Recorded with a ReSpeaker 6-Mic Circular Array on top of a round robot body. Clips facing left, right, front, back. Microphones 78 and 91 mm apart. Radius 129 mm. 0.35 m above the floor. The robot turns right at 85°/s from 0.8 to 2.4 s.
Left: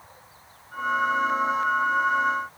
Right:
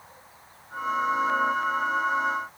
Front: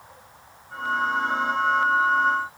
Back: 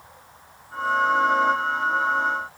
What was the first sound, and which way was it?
Only background noise.